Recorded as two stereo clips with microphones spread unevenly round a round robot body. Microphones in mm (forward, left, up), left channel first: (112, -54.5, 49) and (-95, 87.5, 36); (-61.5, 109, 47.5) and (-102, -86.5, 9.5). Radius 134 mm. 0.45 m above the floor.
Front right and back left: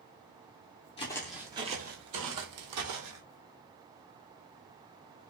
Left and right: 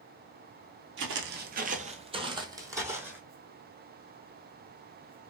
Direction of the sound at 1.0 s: 90° right.